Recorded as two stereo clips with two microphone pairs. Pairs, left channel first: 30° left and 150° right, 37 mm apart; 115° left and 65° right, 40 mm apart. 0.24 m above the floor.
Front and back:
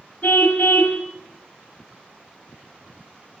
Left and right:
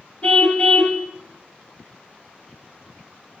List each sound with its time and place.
0.2 s a car horn: 65° left, 2 m